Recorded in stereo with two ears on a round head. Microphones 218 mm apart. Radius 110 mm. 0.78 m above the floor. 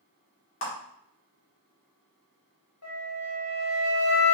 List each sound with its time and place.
0.6 s a clap: 50° left (ahead or behind), 1.8 m
2.8 s a flute: 75° left (ahead or behind), 1.4 m